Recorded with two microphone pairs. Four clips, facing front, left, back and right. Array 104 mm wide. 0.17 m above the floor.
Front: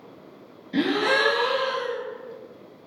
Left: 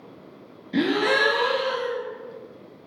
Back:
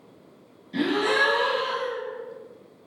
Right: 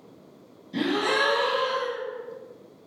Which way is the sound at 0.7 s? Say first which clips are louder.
Left 3 dB, front 1 dB; 50° left.